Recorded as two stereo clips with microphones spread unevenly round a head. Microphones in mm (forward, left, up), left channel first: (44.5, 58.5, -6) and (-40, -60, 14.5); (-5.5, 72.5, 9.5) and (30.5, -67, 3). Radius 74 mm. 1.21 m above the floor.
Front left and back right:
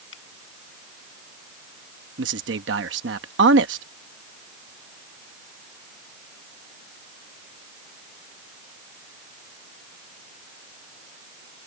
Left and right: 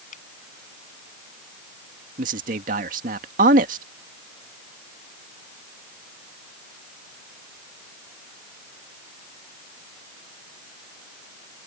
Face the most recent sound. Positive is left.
turn(degrees=-115)